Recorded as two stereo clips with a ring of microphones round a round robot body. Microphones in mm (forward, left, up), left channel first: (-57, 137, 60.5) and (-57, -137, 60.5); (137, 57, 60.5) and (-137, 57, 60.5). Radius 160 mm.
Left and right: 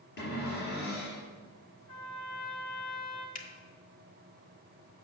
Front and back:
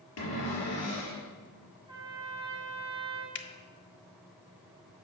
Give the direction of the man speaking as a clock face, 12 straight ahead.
No man speaking in this recording.